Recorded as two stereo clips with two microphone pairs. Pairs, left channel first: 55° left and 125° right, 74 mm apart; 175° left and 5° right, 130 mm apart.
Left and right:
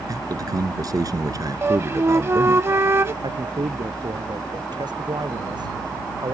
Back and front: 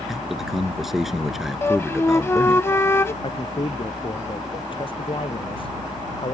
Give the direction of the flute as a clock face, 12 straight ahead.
5 o'clock.